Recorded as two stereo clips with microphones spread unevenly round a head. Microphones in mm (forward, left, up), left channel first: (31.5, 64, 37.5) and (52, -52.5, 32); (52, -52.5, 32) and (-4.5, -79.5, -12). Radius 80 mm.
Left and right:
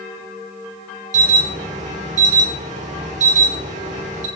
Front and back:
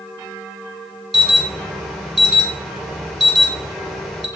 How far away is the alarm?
About 3.5 m.